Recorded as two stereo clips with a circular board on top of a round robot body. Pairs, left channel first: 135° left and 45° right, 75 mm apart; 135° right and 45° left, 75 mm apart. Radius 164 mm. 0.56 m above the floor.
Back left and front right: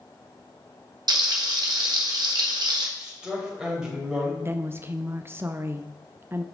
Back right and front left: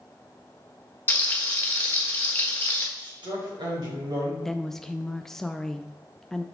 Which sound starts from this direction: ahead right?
A woman speaking, at 4.4 s.